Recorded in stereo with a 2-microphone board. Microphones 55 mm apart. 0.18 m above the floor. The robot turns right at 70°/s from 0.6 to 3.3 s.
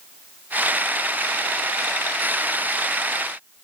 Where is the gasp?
No gasp in this recording.